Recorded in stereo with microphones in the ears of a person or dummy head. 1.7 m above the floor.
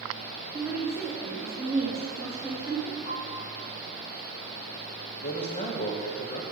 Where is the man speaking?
45° left (ahead or behind), 1.2 m.